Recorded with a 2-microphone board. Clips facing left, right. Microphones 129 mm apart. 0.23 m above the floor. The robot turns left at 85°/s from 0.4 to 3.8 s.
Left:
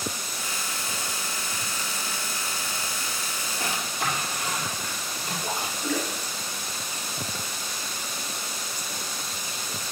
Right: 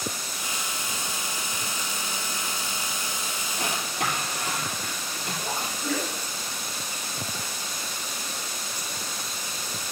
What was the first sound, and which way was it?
A drawer, 75° right (ahead or behind).